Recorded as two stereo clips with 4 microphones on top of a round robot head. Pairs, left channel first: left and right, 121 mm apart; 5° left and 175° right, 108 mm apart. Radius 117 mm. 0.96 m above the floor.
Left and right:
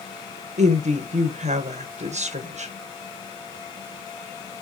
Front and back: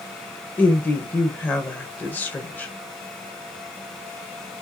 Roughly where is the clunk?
I don't hear a clunk.